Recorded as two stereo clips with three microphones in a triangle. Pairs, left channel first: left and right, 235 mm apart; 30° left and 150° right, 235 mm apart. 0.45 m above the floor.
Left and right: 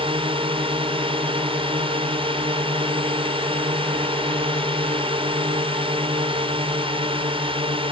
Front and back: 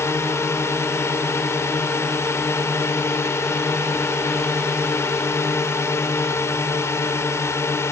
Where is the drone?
40° right.